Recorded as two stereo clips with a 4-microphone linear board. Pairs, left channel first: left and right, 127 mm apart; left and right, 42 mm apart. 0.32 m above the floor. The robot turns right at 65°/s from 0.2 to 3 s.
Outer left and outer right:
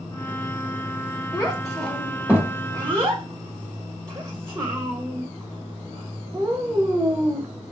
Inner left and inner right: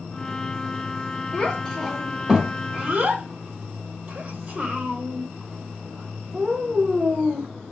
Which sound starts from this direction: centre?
A child speaking, at 1.3 s.